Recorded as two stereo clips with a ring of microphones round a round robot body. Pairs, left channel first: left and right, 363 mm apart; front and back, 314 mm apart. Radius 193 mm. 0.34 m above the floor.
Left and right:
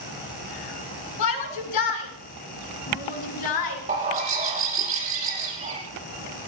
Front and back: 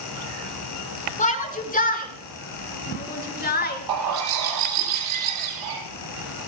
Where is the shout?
65° left, 5.5 m; by 3.8 s 60° left, 6.5 m.